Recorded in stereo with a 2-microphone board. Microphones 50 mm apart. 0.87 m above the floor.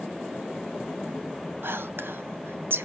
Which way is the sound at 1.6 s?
50° right (ahead or behind).